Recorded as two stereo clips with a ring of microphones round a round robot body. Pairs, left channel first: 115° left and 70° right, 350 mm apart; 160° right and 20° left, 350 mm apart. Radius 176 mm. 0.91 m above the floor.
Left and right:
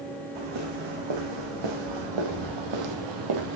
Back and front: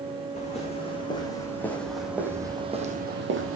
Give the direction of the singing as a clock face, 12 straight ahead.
I don't hear singing.